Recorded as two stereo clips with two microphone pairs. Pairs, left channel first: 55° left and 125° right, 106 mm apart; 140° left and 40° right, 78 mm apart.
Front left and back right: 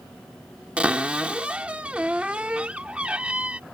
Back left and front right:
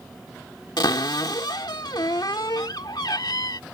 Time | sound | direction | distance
0.8 | a cupboard door | 160° left | ?